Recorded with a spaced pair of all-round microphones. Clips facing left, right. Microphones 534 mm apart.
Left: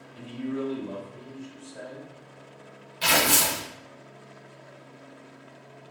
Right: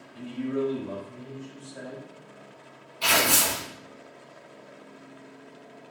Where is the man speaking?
80° right, 1.8 m; by 2.1 s 35° right (ahead or behind), 3 m.